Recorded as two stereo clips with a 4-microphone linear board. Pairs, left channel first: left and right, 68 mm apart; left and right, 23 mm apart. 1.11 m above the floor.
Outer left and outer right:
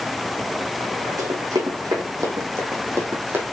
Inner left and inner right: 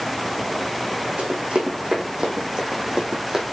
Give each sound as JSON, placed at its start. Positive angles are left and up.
{"t": 1.2, "sound": "running footsteps", "side_deg": -65, "distance_m": 4.0}